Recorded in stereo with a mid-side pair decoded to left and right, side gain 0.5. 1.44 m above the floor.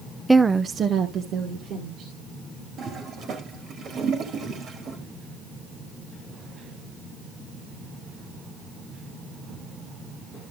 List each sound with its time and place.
0.3 s a woman speaking: 5° right, 0.6 m; by 2.1 s 70° right, 3 m
2.8 s a toilet flushing: 60° right, 2.5 m